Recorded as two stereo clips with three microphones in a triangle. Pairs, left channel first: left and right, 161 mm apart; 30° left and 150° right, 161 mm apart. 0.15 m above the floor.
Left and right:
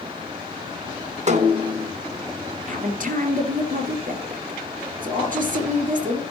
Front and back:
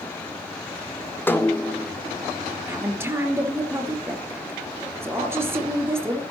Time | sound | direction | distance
1.3 | a snare drum | 50° right | 1.3 m
2.7 | a woman speaking | 75° right | 3 m